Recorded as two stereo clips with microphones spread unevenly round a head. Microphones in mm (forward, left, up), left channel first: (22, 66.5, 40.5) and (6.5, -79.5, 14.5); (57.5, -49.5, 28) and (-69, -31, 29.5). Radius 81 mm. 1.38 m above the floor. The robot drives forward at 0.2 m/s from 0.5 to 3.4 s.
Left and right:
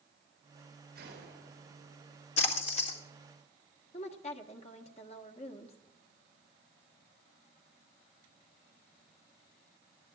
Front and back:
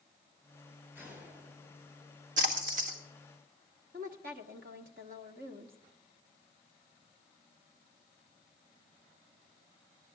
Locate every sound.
0.9 s a gunshot: 115° right, 9 m
2.4 s a splash: 130° left, 1.7 m; by 3.0 s 135° left, 1.8 m
3.9 s a woman speaking: 135° left, 1.2 m